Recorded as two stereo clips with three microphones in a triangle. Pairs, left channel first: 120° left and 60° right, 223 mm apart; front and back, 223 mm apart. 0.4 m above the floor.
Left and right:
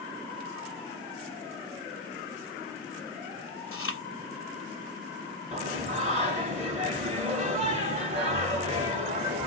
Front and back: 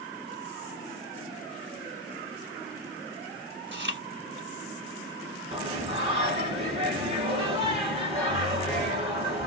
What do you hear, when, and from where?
3.7 s chewing: 140° left, 1.0 m
5.5 s singing: 120° right, 1.4 m